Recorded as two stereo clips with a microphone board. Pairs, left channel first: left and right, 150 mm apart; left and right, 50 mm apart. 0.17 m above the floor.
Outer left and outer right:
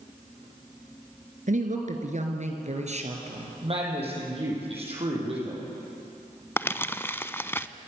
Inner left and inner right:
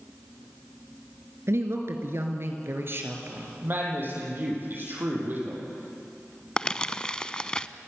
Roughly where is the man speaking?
Right.